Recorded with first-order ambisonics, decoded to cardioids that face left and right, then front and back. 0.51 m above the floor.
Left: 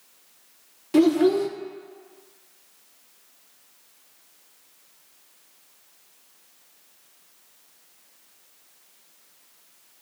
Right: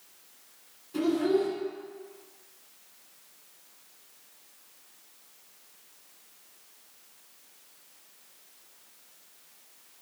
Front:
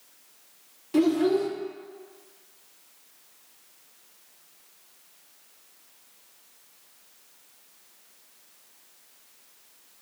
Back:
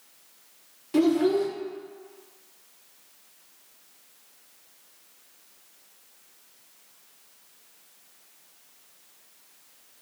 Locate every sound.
0.9 s a child speaking: 95° left, 0.5 m